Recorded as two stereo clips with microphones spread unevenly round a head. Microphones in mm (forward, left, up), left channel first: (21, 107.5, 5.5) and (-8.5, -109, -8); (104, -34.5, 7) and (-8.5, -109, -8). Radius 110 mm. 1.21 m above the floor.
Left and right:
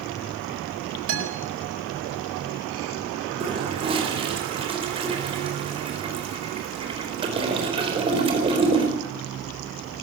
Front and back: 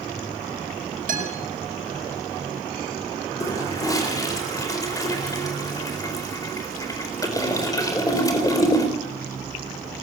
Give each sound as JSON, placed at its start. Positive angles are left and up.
{"t": 1.1, "sound": "a guitar", "azimuth_deg": -125, "distance_m": 5.0}
{"t": 3.4, "sound": "a toilet flushing", "azimuth_deg": -30, "distance_m": 4.0}